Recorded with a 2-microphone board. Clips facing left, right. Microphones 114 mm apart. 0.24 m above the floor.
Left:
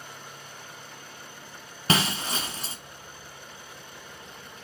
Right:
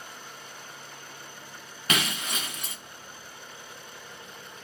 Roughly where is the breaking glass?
Left.